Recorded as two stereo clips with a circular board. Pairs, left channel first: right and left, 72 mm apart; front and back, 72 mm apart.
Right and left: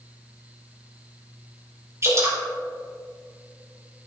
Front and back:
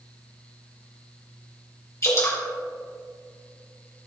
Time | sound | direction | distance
2.0 | dripping | 45° left | 3 m